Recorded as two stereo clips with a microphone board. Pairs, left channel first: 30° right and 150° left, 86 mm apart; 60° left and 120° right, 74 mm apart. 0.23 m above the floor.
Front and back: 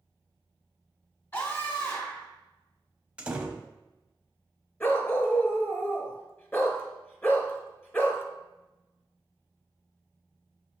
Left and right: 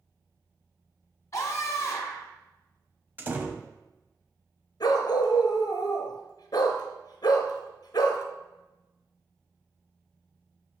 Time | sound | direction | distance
1.3 | a scream | 20° left | 1.7 m
3.2 | a door slam | 145° right | 0.7 m
4.8 | a dog barking | 35° left | 0.8 m